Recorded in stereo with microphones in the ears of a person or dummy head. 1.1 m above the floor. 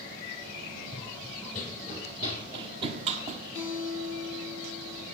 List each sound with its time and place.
0.9 s running footsteps: 20° left (ahead or behind), 1.1 m; by 3.4 s 35° right (ahead or behind), 1.7 m
3.5 s a guitar: 20° right (ahead or behind), 8 m